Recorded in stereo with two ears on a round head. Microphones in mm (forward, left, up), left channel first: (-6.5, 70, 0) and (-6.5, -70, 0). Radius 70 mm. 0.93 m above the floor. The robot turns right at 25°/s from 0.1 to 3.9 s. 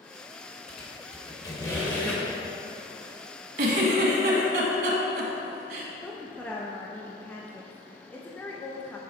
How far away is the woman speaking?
About 0.7 m.